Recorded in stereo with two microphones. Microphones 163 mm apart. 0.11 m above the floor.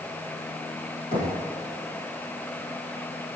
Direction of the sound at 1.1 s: 35° left (ahead or behind).